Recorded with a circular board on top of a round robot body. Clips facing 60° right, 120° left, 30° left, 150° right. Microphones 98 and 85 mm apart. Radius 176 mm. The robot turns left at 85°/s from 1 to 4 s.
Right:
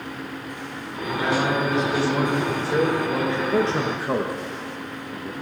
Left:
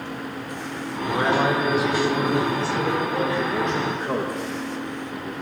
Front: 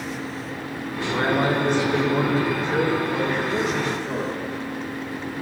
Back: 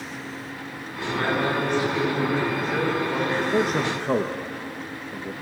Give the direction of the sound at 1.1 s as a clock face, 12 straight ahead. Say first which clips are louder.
Left 2 dB, front 2 dB; 9 o'clock.